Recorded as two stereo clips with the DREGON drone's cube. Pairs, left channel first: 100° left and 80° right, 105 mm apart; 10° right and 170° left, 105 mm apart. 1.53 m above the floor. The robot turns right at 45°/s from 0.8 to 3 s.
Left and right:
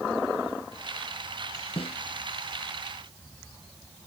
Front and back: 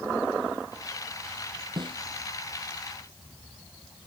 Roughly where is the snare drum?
Behind left.